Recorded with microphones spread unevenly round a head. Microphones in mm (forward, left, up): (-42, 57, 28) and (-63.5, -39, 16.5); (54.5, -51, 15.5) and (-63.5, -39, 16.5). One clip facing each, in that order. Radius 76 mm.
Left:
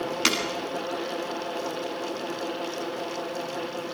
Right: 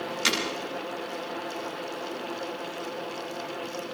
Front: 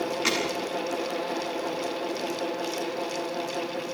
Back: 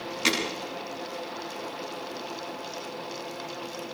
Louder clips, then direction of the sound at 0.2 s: Left 1 dB, back 4 dB; 105° left.